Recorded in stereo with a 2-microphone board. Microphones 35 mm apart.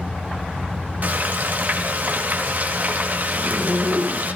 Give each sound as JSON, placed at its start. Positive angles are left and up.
{"t": 1.0, "sound": "frying", "side_deg": -50, "distance_m": 1.7}
{"t": 3.3, "sound": "a zipper", "side_deg": -45, "distance_m": 1.0}